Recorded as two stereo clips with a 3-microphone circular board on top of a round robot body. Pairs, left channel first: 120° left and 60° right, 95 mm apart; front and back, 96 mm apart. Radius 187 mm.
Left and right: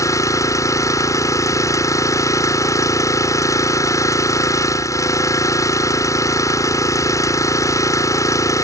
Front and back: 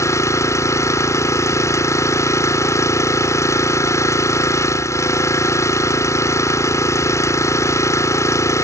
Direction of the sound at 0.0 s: 60° left.